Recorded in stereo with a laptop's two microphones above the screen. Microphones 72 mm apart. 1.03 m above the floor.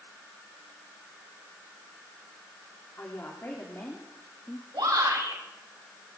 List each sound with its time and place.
3.0 s a woman speaking: 35° left (ahead or behind), 3 m; by 4.6 s 25° left (ahead or behind), 2.0 m
4.7 s a shout: 80° right, 6 m